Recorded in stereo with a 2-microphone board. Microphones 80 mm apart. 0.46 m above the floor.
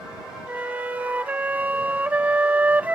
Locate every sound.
0.5 s a flute: 20° right (ahead or behind)